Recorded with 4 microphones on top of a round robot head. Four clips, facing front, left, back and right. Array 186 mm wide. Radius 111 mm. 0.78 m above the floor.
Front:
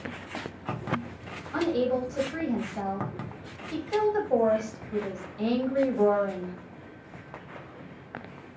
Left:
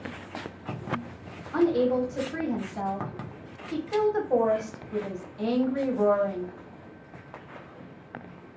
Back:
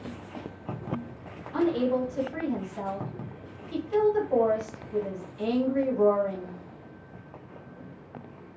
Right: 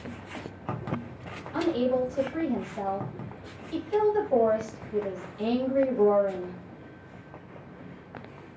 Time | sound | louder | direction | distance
1.5 | a woman speaking | left 3 dB, back 1 dB | 55° left | 1.4 m